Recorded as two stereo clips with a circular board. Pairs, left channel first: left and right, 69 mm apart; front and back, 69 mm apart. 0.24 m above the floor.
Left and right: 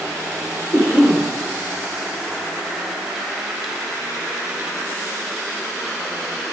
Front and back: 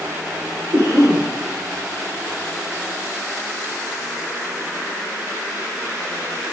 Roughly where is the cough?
Behind left.